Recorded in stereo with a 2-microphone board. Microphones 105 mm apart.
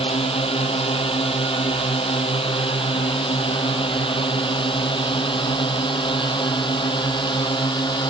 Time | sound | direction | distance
0.0 | a drone | 65° left (ahead or behind) | ?